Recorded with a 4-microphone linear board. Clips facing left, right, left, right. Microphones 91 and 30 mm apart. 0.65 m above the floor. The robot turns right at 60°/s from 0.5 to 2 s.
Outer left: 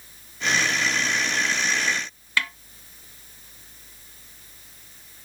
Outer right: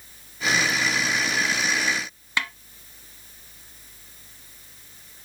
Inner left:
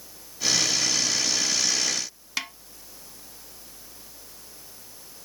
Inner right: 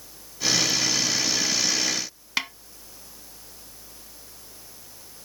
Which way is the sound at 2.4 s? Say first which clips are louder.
Outer left 1 dB, inner right 4 dB; 20° right (ahead or behind).